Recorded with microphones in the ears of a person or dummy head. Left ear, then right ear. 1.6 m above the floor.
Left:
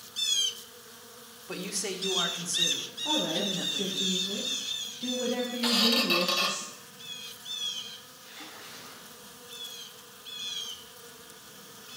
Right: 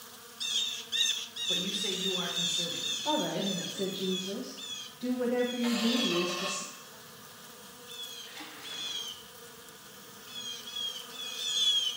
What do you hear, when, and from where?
1.5 s a man speaking: 40° left (ahead or behind), 1.4 m
3.0 s a woman speaking: 5° left (ahead or behind), 1.5 m
5.6 s a squeak: 50° left (ahead or behind), 1.0 m
8.2 s a splash: 15° right (ahead or behind), 3.5 m